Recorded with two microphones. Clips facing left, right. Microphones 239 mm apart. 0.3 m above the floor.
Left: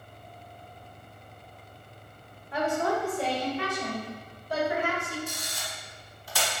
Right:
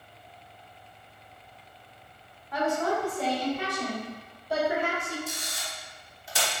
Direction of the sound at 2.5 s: 30° left (ahead or behind).